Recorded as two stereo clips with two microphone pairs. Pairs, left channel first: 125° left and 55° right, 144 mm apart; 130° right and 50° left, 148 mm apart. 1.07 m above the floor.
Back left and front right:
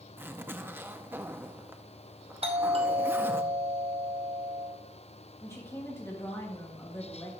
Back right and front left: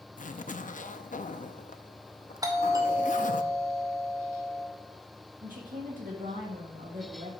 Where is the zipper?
130° right, 0.6 m.